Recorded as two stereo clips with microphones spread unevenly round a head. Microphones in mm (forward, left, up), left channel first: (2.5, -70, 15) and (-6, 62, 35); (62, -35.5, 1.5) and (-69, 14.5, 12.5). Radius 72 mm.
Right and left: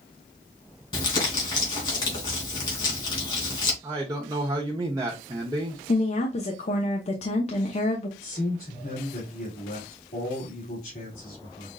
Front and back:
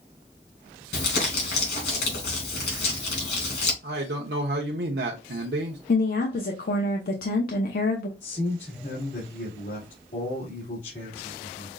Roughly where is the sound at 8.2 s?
Ahead right.